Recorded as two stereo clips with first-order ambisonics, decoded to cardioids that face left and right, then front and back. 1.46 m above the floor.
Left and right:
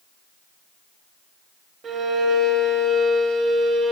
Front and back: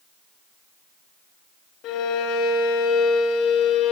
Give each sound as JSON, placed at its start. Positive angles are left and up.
{"t": 1.8, "sound": "a violin", "azimuth_deg": -30, "distance_m": 0.8}